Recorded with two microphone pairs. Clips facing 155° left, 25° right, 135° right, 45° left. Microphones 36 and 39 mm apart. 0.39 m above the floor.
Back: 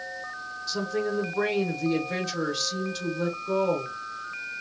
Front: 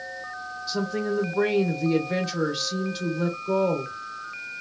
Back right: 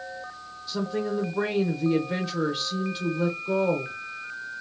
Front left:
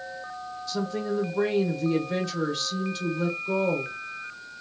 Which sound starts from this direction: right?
A woman speaking, at 0.7 s.